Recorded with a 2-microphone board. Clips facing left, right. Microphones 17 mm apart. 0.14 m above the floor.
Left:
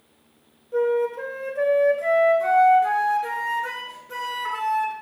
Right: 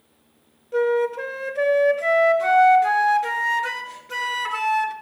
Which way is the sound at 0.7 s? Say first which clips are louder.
Right 1 dB; 45° right (ahead or behind).